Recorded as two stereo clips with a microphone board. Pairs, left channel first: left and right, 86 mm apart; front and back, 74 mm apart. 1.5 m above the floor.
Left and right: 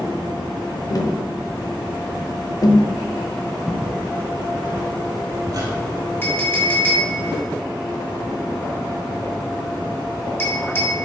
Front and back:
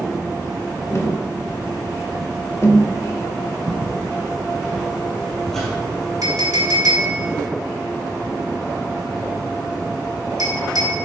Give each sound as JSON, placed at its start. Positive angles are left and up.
{"t": 0.9, "sound": "tapping", "azimuth_deg": 50, "distance_m": 0.9}
{"t": 3.7, "sound": "footsteps", "azimuth_deg": -160, "distance_m": 1.6}
{"t": 6.2, "sound": "a clink", "azimuth_deg": 150, "distance_m": 2.0}